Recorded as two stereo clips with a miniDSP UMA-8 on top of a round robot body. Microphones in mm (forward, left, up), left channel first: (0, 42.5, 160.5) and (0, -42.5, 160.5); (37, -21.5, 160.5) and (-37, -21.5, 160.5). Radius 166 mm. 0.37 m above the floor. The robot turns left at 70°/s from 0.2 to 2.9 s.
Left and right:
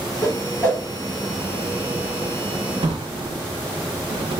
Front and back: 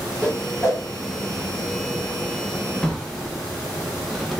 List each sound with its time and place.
0.2 s a whoosh: 65° left, 1.8 m; by 0.8 s 20° left, 1.8 m
2.8 s a drawer: 75° right, 0.6 m; by 4.4 s 85° right, 0.6 m